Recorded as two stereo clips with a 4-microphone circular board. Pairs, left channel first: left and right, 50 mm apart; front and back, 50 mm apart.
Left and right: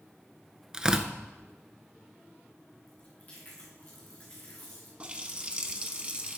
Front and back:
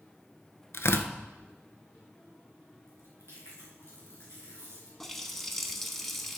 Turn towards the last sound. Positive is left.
turn(degrees=-80)